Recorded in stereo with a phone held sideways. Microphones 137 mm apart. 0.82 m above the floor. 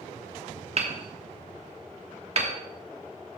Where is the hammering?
50° right (ahead or behind), 1.2 m.